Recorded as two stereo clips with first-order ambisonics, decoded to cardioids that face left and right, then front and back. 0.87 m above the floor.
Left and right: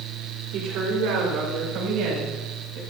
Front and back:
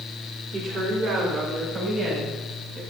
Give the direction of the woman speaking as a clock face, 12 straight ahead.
5 o'clock.